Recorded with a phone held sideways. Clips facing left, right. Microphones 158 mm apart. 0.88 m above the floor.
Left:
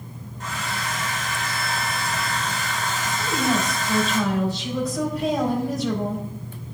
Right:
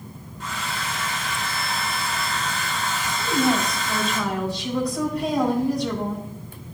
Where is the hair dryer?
50° left (ahead or behind), 2.5 m.